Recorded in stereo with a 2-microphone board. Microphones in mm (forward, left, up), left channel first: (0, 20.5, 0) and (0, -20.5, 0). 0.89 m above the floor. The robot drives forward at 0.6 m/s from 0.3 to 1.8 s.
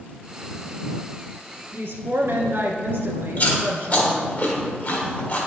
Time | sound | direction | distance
1.7 | a woman speaking | 75° right (ahead or behind) | 1.3 m
3.4 | chewing | 50° left (ahead or behind) | 1.4 m